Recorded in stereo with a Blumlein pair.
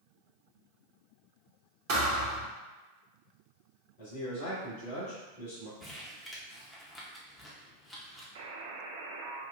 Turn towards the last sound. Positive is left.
turn(degrees=-55)